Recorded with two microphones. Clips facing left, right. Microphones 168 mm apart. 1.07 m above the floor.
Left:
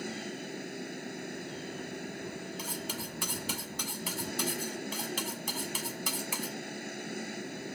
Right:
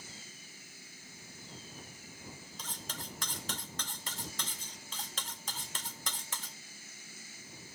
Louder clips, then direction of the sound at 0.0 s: Left 17 dB; 60° left (ahead or behind).